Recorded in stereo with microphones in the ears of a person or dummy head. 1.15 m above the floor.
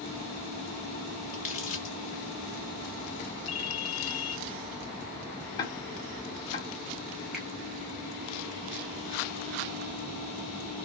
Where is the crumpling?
35° left (ahead or behind), 0.8 m.